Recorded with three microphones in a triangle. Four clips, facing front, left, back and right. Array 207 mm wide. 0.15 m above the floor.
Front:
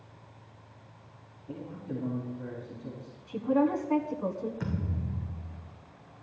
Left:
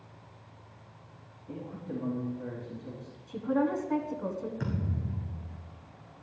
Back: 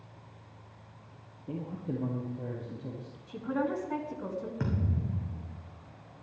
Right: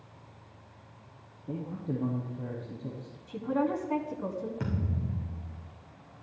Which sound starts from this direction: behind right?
A man speaking, at 1.5 s.